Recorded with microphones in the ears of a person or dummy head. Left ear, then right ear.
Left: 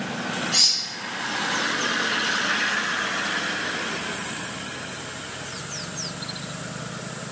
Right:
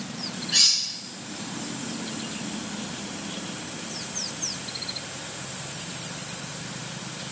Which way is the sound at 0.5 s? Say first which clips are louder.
Even; 50° left (ahead or behind).